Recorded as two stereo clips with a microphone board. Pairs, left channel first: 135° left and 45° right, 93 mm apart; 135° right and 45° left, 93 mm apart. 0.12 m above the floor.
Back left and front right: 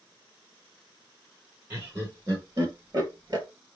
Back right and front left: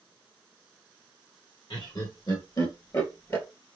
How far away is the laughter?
About 3 m.